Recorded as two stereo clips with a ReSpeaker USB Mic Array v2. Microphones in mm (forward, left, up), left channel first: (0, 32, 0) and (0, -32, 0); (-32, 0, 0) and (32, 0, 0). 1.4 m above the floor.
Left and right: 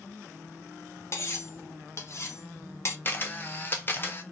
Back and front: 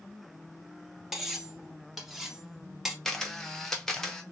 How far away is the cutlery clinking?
About 0.6 m.